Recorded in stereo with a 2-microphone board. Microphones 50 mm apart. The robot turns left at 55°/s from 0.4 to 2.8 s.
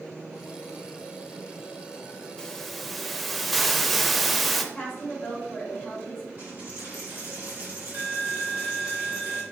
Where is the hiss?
15° left (ahead or behind), 0.5 m; by 4.6 s centre (ahead or behind), 0.5 m.